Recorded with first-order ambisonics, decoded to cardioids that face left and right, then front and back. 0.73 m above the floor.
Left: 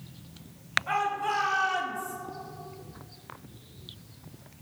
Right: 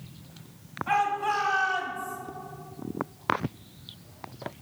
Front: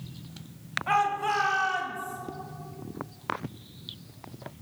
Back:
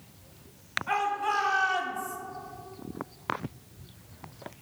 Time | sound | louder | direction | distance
0.9 | a shout | right 6 dB, front 3 dB | 10° right | 1.6 m